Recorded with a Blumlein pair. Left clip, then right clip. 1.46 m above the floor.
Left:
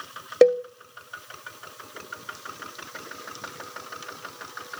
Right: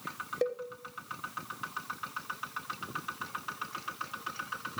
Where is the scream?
No scream in this recording.